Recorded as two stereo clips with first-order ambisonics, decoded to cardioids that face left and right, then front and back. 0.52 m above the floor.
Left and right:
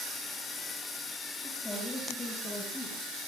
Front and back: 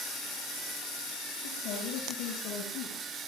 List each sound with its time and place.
1.4 s a woman speaking: 10° left, 7 m; by 3.3 s 25° left, 5.5 m